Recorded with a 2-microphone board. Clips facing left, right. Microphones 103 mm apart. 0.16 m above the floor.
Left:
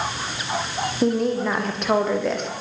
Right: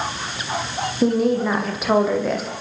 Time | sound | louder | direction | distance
1.0 | a woman speaking | right 3 dB | 5° right (ahead or behind) | 6 m